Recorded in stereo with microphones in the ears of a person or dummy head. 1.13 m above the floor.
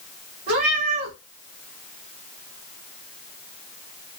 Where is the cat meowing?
55° right (ahead or behind), 1.6 m.